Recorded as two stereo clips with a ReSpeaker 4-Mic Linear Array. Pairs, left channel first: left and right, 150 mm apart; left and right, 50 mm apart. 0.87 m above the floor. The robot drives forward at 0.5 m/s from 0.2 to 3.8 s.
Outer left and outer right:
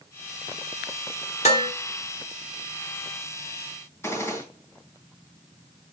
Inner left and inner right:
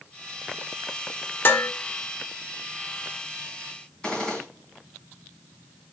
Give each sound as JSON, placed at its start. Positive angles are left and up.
{"t": 1.4, "sound": "dishes clattering", "side_deg": 50, "distance_m": 1.3}
{"t": 4.0, "sound": "a gunshot", "side_deg": 15, "distance_m": 3.0}